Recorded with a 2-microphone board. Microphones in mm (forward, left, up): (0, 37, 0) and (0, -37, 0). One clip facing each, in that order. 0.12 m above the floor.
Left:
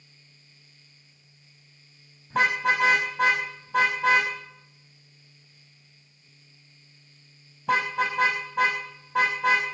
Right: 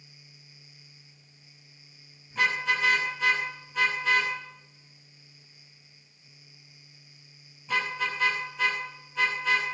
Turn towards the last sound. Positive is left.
turn(degrees=70)  # may be behind; listen again after turning